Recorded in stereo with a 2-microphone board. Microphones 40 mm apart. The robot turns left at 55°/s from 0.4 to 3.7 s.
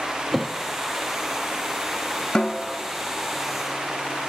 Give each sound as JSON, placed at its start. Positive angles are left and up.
{"t": 0.3, "sound": "a thud", "side_deg": 5, "distance_m": 3.5}
{"t": 2.4, "sound": "a snare drum", "side_deg": 20, "distance_m": 2.0}